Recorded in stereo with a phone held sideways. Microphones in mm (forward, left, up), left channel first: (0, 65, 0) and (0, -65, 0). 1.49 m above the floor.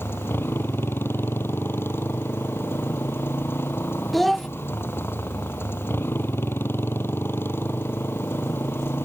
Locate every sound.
0.0 s a motorcycle: 15° left (ahead or behind)
4.1 s a child speaking: centre (ahead or behind)